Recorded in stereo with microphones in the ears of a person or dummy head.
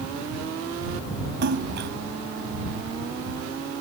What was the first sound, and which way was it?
A splash, 60° right (ahead or behind).